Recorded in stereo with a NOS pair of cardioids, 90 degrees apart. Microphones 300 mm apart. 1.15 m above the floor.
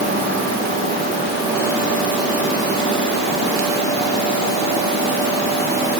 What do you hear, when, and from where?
Only background noise.